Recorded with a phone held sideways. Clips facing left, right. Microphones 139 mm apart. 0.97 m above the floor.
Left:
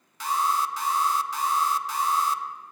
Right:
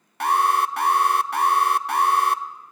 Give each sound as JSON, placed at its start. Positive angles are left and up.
{"t": 0.2, "sound": "an alarm", "side_deg": -60, "distance_m": 0.7}